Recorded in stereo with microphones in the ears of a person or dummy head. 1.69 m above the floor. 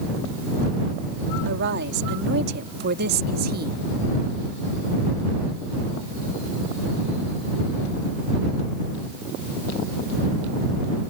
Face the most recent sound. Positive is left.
turn(degrees=-45)  # may be behind; listen again after turning